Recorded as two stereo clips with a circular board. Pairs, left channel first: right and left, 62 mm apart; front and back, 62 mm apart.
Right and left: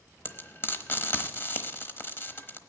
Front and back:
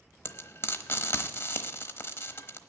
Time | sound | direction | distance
0.2 | frying | 40° right | 0.9 m